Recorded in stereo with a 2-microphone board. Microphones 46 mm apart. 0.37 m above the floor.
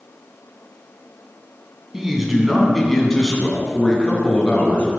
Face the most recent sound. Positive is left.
turn(degrees=25)  # may be behind; listen again after turning